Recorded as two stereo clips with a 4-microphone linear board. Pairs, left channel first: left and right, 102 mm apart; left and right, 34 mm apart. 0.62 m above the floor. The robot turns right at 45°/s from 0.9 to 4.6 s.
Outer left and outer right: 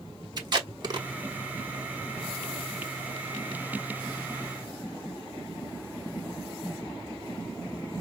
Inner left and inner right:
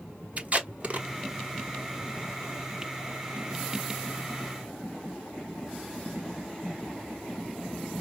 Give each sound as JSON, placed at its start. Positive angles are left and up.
{"t": 0.4, "sound": "tape being pulled", "side_deg": -40, "distance_m": 1.1}